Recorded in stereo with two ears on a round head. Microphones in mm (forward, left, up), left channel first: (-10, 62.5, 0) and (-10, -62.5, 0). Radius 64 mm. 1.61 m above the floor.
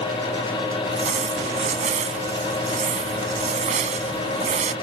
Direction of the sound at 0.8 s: 55° right (ahead or behind).